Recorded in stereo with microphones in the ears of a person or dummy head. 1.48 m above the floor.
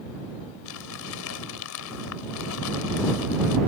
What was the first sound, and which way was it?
Crumpling, 80° left.